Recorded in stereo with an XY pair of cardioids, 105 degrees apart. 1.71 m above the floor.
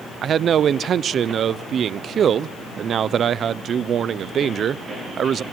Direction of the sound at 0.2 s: 55° right.